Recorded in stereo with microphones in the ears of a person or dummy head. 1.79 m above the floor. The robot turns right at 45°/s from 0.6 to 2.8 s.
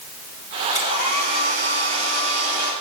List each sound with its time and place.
0.8 s a hair dryer: 160° right, 9.5 m; by 2.7 s 70° right, 9.5 m